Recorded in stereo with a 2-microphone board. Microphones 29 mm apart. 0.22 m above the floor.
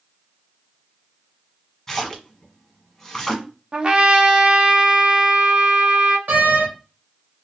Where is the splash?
15° left (ahead or behind), 0.9 m.